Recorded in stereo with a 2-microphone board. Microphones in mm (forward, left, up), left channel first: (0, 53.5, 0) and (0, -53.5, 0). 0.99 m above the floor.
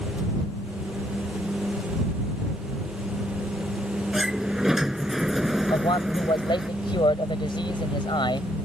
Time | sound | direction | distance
4.1 | a sliding door | 5° right (ahead or behind) | ?
5.7 | a man speaking | 50° left (ahead or behind) | ?